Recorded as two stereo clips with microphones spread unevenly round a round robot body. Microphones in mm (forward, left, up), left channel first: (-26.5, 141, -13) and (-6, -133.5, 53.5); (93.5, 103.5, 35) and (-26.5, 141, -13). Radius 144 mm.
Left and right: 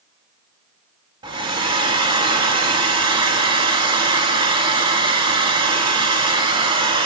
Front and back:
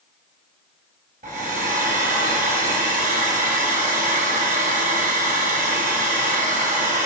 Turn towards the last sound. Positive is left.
turn(degrees=-160)